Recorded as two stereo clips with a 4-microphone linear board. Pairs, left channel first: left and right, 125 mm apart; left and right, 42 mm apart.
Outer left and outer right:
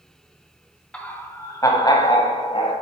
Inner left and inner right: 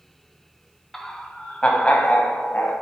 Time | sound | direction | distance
0.9 | laughter | 10° left (ahead or behind) | 1.6 m